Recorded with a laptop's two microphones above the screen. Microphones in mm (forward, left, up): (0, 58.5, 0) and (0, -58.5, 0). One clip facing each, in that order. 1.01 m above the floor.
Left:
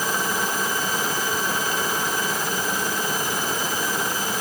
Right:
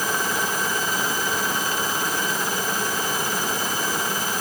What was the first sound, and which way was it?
Only background noise.